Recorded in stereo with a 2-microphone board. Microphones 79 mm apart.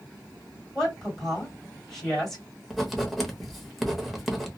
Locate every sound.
0.8 s a woman speaking: centre (ahead or behind), 2 m
2.7 s writing: centre (ahead or behind), 0.7 m